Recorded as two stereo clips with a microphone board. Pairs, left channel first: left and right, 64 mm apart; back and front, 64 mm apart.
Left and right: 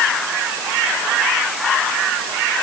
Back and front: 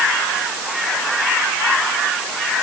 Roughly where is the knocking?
No knocking in this recording.